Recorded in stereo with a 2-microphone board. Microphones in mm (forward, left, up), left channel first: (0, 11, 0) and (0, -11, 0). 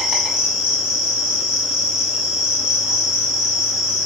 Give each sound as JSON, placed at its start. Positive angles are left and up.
{"t": 0.0, "sound": "an insect", "side_deg": -35, "distance_m": 1.4}